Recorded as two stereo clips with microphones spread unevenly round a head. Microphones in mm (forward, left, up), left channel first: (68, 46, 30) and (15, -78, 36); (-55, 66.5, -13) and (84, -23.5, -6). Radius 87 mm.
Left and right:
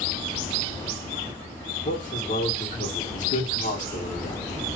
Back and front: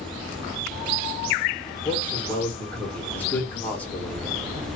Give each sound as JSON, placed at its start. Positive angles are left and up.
{"t": 1.9, "sound": "a man speaking", "azimuth_deg": 70, "distance_m": 1.4}